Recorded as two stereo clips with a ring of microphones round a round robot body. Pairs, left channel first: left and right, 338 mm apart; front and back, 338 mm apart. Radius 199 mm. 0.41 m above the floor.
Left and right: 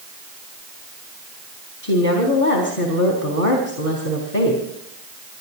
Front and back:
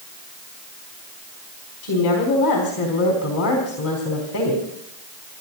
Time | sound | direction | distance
1.8 | a woman speaking | 35° left | 4 m